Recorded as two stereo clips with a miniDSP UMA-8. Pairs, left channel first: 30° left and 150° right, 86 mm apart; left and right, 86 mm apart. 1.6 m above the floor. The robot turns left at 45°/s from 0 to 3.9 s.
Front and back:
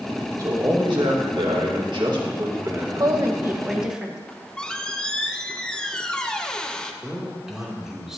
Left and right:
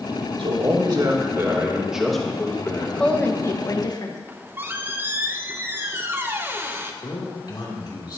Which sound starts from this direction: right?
A man speaking, at 0.4 s.